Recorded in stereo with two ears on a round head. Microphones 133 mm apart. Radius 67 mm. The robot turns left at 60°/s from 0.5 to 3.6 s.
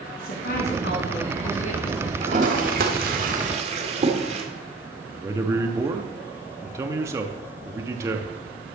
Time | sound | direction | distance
0.2 | a woman speaking | 115° left | 5 m
2.2 | a toilet flushing | 40° right (ahead or behind) | 1.8 m
5.1 | a man speaking | 20° right (ahead or behind) | 0.8 m